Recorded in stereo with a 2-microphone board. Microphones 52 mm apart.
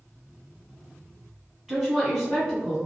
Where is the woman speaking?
10° right (ahead or behind), 1.9 m.